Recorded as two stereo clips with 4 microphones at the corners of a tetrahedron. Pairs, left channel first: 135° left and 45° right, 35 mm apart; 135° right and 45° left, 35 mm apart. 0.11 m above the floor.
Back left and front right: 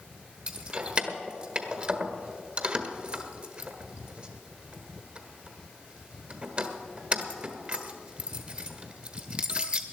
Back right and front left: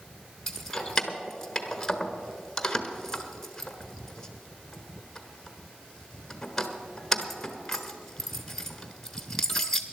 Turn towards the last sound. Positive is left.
turn(degrees=-65)